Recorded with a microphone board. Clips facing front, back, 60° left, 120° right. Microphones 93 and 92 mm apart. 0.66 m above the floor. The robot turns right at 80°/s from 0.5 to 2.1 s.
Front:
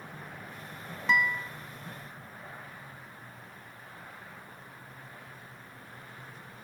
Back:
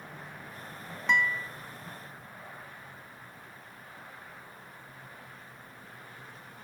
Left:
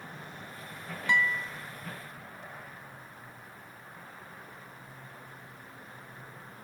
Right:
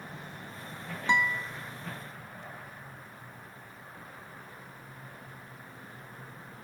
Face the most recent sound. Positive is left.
turn(degrees=-5)